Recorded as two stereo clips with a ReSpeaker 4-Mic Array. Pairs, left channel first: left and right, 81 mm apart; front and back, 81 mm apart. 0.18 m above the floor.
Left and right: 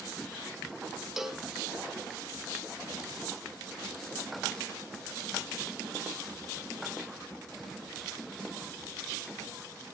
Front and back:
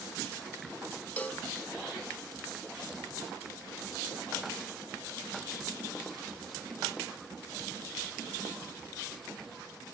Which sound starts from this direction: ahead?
A cowbell, at 1.2 s.